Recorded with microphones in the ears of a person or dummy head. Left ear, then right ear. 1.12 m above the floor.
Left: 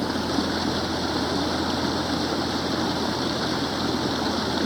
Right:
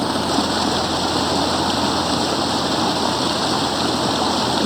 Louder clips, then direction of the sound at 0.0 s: Right 6 dB; 30° right (ahead or behind).